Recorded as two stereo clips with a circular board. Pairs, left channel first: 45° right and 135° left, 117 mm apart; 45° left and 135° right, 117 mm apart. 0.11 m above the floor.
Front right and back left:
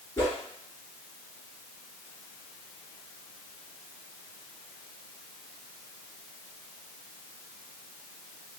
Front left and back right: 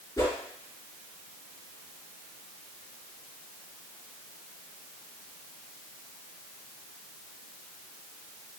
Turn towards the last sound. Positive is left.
turn(degrees=10)